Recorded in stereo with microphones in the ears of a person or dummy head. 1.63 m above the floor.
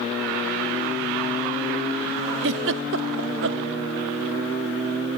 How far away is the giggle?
About 0.5 m.